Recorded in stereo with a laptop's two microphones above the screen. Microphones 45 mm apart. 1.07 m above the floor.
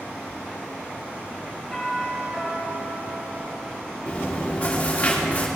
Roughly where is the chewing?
Left.